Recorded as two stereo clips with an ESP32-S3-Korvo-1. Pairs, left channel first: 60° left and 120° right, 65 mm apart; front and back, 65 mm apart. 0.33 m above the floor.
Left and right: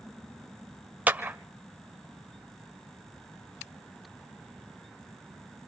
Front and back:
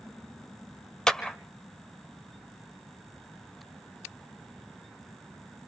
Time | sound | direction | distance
1.1 | a clap | 75° right | 1.2 m